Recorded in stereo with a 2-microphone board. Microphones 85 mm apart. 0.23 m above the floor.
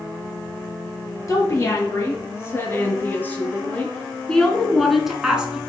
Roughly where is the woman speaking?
Left.